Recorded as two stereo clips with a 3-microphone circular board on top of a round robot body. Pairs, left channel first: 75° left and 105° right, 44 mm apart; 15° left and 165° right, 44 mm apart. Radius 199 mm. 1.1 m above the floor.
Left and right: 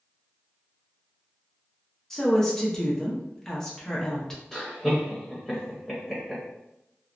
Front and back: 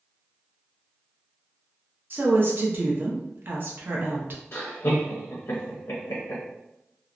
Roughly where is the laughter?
Ahead.